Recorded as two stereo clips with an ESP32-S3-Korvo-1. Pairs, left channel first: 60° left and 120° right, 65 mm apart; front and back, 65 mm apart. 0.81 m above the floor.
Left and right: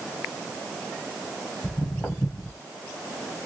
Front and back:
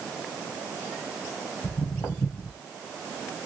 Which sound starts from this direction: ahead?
Footsteps, at 1.6 s.